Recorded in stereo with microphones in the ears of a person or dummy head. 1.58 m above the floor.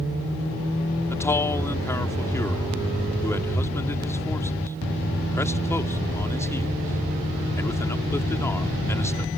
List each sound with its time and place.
1.1 s a man speaking: 15° left (ahead or behind)